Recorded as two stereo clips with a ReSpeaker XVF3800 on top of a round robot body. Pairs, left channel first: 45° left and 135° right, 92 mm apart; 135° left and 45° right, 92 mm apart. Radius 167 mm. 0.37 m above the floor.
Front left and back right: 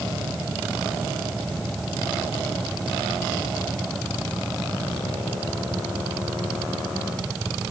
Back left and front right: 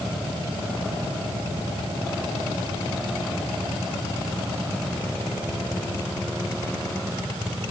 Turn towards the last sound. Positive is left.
No sound to turn to.